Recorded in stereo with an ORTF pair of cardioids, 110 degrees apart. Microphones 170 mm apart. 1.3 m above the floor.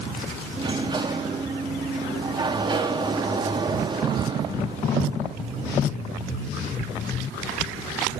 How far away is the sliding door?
About 1.9 m.